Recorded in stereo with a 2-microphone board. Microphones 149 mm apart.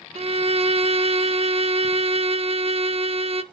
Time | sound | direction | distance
0.1 | a violin | 40° right (ahead or behind) | 0.7 m